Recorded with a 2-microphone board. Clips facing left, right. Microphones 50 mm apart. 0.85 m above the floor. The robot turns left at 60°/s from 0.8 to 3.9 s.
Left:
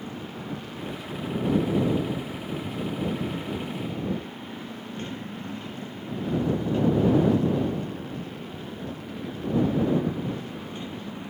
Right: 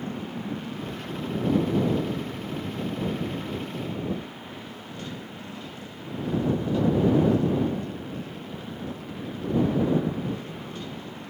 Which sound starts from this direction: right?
A motorcycle, at 0.0 s.